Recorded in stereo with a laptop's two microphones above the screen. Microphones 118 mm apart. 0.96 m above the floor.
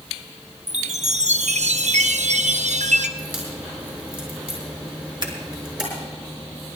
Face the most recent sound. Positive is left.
turn(degrees=-40)  # may be behind; listen again after turning